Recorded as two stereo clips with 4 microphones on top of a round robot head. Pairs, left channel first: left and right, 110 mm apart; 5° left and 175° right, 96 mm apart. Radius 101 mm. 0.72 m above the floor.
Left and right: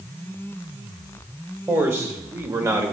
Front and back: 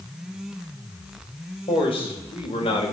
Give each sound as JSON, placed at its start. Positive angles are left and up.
{"t": 1.7, "sound": "a man speaking", "azimuth_deg": -25, "distance_m": 4.0}